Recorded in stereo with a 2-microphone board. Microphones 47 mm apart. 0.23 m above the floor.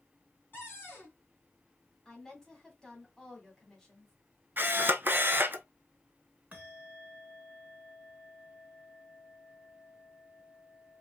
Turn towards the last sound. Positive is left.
turn(degrees=-30)  # may be behind; listen again after turning